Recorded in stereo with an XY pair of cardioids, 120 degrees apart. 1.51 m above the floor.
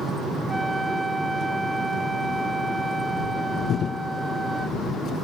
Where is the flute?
10° right.